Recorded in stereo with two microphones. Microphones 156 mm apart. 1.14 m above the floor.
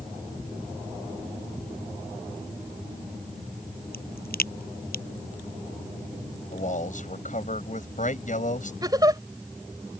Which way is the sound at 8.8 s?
25° right (ahead or behind).